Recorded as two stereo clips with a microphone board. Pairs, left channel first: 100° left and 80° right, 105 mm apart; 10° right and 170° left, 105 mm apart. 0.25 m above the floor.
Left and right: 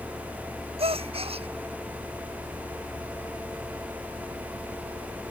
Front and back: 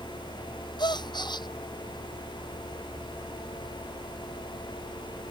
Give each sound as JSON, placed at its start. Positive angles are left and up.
{"t": 0.8, "sound": "a gasp", "azimuth_deg": -55}